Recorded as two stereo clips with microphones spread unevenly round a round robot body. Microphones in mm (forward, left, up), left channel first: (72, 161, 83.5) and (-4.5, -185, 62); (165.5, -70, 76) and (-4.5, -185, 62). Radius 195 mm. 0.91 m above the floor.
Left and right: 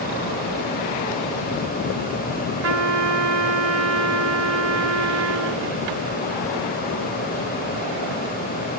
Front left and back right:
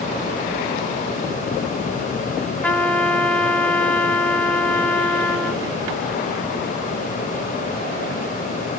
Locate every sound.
2.6 s a trumpet: 50° right, 2.0 m